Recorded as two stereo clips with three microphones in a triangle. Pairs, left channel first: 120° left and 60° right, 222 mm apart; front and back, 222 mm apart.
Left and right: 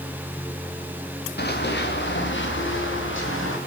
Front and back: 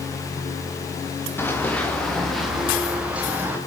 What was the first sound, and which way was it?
Running footsteps, 80° left.